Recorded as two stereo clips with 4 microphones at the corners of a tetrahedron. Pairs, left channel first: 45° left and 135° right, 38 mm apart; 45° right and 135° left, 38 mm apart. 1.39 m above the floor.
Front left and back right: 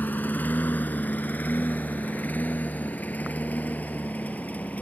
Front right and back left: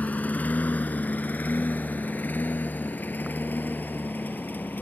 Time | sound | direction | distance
0.0 | a lawn mower | straight ahead | ?